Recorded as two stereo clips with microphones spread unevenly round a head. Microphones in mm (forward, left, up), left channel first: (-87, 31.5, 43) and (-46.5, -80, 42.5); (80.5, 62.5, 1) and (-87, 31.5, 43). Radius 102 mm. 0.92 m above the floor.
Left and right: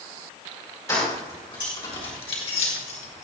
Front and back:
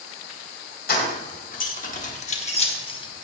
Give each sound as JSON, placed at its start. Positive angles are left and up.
{"t": 0.9, "sound": "keys jangling", "azimuth_deg": 40, "distance_m": 4.0}